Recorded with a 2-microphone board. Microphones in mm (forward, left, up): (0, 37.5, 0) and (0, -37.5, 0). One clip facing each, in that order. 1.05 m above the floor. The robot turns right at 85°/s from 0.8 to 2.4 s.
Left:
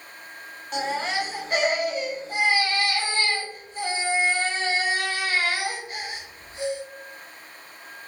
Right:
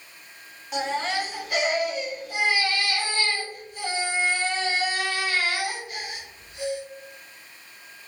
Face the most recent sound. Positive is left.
turn(degrees=130)